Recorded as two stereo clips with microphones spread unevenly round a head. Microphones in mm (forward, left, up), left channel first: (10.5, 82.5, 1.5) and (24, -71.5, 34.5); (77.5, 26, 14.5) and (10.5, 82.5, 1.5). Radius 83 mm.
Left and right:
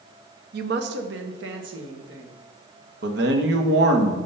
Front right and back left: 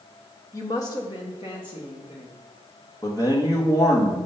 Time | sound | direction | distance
0.5 | a woman speaking | 105° right | 0.7 m
3.0 | a man speaking | 110° right | 1.1 m